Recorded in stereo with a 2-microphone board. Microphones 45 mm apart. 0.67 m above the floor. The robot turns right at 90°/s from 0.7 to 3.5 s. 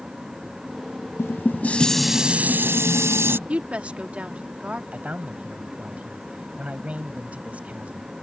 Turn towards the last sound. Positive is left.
turn(degrees=-30)  # may be behind; listen again after turning